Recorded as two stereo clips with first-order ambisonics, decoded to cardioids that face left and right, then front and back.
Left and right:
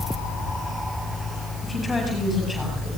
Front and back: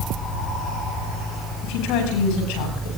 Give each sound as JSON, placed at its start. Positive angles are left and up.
{"t": 1.6, "sound": "a woman speaking", "azimuth_deg": 5, "distance_m": 9.5}